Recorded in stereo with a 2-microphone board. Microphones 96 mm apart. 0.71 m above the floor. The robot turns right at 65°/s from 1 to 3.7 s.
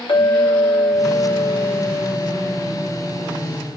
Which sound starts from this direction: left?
A clink, at 0.1 s.